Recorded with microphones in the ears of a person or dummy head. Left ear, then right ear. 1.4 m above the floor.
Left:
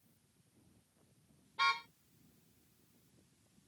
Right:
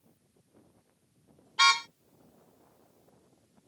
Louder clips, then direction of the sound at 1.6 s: Right 10 dB; 50° right (ahead or behind).